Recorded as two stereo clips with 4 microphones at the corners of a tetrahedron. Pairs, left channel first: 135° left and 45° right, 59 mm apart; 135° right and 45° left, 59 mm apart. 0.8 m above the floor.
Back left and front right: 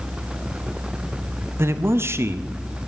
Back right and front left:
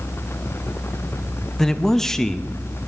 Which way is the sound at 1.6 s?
60° right.